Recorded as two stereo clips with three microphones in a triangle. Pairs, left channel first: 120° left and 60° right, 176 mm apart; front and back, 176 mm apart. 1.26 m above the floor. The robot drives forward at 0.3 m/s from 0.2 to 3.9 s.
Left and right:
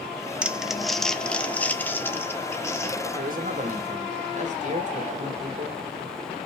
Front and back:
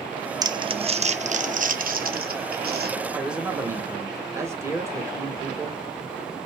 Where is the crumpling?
135° right, 0.5 m; by 3.0 s 170° right, 1.1 m.